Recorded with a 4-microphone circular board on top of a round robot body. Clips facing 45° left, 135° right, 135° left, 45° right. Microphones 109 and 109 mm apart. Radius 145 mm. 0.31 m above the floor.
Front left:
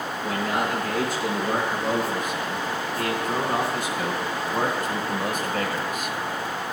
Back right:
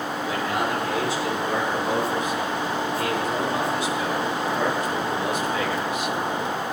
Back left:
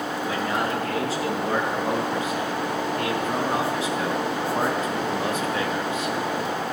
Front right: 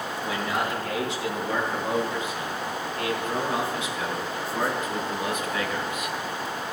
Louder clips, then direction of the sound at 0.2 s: Front left 1 dB, back left 1 dB; 85° left.